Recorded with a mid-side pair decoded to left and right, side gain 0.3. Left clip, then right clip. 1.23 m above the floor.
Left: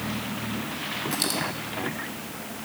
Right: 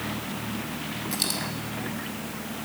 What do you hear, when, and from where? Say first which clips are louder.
1.1 s a dropped coin: even; 10° right, 2.5 m